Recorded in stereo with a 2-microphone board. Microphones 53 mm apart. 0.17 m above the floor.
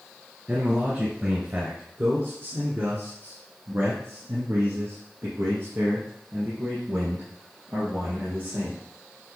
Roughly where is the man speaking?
Right.